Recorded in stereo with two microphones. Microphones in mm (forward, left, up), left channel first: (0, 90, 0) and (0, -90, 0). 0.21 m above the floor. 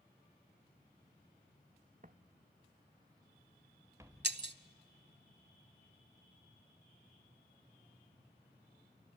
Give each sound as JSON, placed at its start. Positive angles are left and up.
{"t": 2.0, "sound": "footsteps", "side_deg": -50, "distance_m": 0.7}
{"t": 4.2, "sound": "breaking glass", "side_deg": -70, "distance_m": 0.7}